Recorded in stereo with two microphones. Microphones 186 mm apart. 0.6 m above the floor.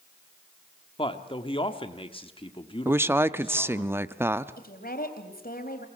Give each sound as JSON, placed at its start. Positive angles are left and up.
{"t": 1.0, "sound": "a man speaking", "side_deg": 30, "distance_m": 1.3}
{"t": 2.9, "sound": "a woman speaking", "side_deg": -15, "distance_m": 0.6}
{"t": 4.6, "sound": "a woman speaking", "side_deg": 55, "distance_m": 3.5}